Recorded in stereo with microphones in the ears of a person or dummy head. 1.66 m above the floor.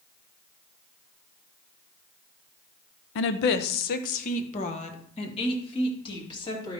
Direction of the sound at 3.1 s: 60° left (ahead or behind).